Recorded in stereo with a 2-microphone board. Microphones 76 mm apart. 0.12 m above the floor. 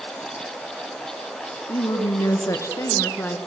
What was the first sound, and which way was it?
A woman speaking, 50° left (ahead or behind).